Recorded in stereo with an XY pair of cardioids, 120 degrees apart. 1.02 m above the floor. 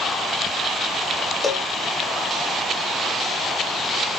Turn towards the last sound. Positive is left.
turn(degrees=15)